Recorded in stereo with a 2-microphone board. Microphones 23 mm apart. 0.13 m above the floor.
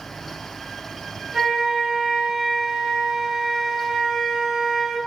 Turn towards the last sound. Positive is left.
turn(degrees=-20)  # may be behind; listen again after turning